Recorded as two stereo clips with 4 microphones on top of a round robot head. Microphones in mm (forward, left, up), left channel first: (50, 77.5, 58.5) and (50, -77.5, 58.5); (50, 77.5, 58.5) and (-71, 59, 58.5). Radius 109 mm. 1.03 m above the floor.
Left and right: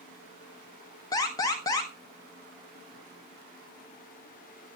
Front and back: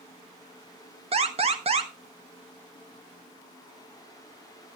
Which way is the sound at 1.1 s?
155° left.